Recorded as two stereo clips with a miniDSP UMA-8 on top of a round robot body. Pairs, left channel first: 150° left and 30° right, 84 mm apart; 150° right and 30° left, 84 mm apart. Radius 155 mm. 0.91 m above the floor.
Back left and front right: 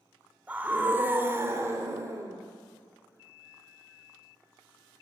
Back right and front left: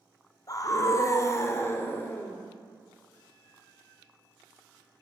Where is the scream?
105° right, 3 m; by 2.4 s 85° right, 3 m.